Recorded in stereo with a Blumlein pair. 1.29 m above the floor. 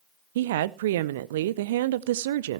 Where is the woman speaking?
55° right, 0.7 m.